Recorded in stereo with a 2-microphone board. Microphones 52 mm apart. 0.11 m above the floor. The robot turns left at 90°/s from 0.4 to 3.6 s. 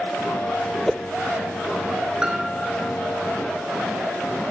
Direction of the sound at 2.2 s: 15° right (ahead or behind).